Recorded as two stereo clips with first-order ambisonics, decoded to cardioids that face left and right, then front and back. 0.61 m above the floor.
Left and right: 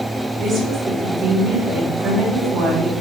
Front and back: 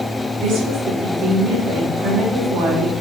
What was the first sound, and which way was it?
A woman speaking, 150° right.